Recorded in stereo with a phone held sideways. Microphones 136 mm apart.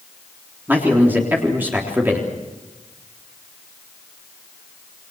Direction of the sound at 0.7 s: 15° right (ahead or behind).